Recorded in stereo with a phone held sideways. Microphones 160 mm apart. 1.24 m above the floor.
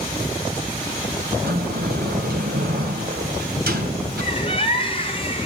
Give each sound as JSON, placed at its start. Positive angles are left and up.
{"t": 1.4, "sound": "a sliding door", "side_deg": -75, "distance_m": 2.5}
{"t": 4.2, "sound": "a bird", "side_deg": 35, "distance_m": 2.0}